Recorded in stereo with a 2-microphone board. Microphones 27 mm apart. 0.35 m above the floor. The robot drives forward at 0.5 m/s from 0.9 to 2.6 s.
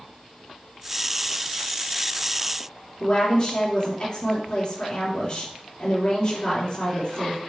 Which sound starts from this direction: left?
A woman speaking, at 3.0 s.